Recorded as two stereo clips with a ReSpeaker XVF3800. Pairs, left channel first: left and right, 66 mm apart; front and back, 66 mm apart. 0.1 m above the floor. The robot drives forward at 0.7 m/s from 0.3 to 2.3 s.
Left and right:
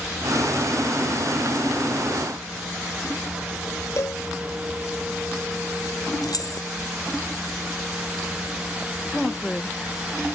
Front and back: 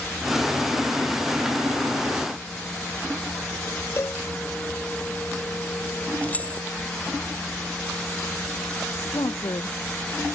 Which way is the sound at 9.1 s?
5° left.